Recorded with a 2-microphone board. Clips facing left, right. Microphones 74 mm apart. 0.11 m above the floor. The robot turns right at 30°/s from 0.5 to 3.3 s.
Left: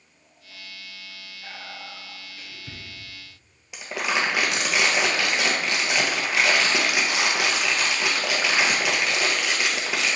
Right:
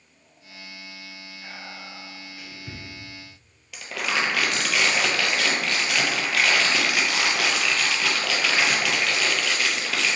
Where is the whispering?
25° right (ahead or behind), 1.5 m; by 2.8 s centre (ahead or behind), 1.5 m.